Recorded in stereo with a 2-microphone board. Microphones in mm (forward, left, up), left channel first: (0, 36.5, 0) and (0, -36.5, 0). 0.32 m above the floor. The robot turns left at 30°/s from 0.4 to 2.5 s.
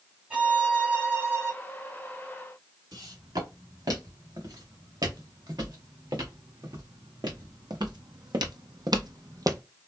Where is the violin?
20° right, 1.6 m; by 1.5 s 55° right, 1.6 m.